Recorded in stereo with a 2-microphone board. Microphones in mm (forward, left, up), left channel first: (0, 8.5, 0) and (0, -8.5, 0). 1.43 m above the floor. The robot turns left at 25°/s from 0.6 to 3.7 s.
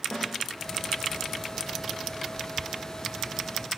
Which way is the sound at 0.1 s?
45° left (ahead or behind).